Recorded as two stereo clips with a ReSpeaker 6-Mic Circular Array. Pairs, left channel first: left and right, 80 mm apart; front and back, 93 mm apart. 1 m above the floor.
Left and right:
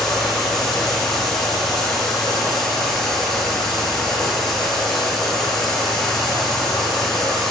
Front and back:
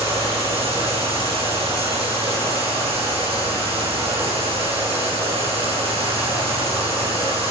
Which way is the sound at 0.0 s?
175° left.